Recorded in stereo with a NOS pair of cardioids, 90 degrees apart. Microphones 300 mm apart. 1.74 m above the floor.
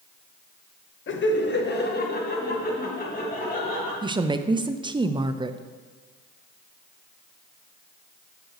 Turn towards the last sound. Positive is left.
turn(degrees=-15)